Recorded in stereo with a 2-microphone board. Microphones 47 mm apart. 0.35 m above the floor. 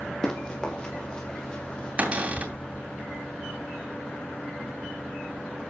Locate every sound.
0.2 s running footsteps: 15° left (ahead or behind), 4.5 m; by 2.1 s 20° left (ahead or behind), 5.5 m
2.0 s a cupboard door: 30° right (ahead or behind), 3 m